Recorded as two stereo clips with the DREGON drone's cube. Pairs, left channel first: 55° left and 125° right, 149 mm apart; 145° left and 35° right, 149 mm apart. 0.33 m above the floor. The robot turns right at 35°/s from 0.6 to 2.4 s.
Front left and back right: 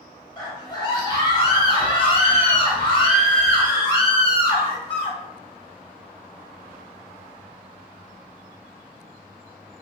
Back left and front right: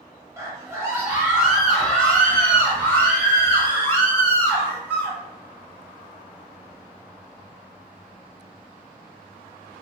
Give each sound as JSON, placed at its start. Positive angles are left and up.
{"t": 0.4, "sound": "a scream", "azimuth_deg": 20, "distance_m": 1.2}